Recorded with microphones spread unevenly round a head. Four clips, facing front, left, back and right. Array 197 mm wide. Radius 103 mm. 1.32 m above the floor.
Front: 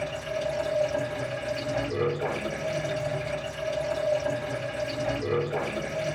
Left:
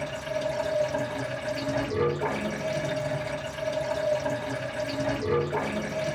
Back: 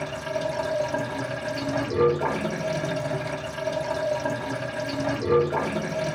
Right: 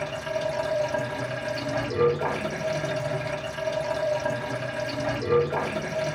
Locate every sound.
0.0 s running water: 155° right, 0.9 m